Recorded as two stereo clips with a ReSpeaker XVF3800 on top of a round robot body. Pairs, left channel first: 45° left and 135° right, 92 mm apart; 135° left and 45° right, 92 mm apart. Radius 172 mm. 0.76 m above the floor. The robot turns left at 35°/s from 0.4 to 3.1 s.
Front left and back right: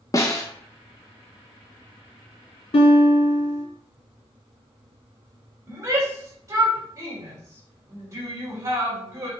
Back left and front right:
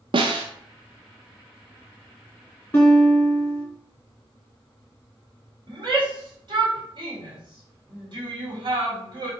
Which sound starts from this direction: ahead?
A snare drum, at 0.1 s.